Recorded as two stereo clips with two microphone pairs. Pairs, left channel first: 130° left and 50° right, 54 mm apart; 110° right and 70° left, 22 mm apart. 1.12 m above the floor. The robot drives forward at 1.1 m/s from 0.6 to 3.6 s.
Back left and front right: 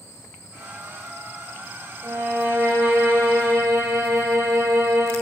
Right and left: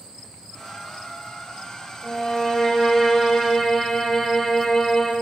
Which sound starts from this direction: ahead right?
A violin, at 2.0 s.